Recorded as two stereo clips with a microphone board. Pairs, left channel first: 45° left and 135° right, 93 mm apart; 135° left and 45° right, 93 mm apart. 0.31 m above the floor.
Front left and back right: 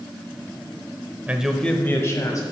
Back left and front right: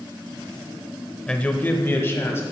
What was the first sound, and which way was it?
A man speaking, 165° right.